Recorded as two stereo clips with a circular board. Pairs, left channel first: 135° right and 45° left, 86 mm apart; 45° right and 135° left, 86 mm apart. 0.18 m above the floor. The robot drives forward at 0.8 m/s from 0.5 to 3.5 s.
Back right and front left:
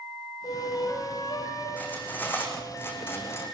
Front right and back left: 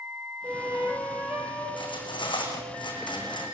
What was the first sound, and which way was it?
A flute, 155° right.